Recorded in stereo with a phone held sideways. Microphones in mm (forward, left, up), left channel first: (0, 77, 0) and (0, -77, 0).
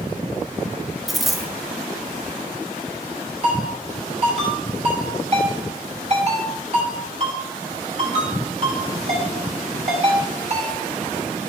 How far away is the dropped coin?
About 1.0 m.